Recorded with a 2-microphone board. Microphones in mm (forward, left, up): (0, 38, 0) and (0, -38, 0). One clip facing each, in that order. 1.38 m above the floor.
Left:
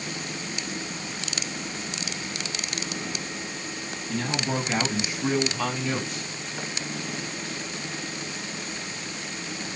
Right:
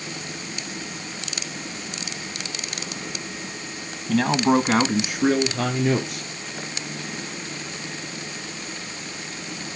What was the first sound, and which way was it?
A man speaking, 70° right (ahead or behind).